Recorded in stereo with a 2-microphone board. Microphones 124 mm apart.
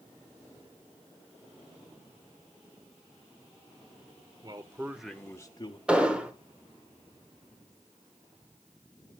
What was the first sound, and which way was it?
A man speaking, 35° right (ahead or behind).